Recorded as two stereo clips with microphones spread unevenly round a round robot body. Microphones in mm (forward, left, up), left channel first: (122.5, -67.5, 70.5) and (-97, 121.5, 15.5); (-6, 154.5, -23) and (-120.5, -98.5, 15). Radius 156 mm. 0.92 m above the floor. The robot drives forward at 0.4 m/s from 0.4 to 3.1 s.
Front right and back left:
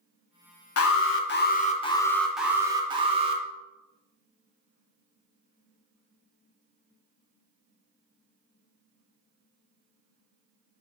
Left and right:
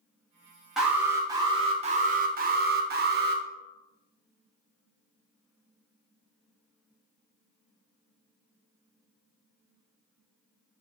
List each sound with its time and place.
0.8 s an alarm: 15° right, 0.7 m; by 3.4 s 170° right, 0.8 m